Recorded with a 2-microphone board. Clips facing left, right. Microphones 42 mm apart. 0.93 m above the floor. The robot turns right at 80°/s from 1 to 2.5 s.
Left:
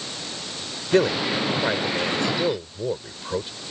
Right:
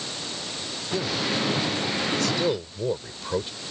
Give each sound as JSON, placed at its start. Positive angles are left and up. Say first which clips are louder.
{"t": 0.9, "sound": "a man speaking", "louder": "left 7 dB", "side_deg": 55}